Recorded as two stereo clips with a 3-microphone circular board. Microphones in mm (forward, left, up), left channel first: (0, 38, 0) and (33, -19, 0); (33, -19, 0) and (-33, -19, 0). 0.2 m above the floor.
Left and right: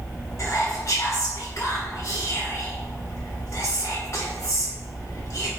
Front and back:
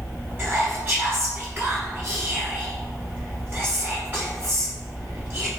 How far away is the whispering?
About 1.4 m.